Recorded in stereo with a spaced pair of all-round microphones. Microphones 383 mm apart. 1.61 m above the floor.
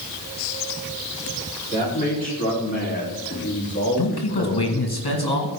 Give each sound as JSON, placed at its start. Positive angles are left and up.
{"t": 1.7, "sound": "a man speaking", "side_deg": 20, "distance_m": 4.5}
{"t": 4.0, "sound": "a man speaking", "side_deg": 75, "distance_m": 2.0}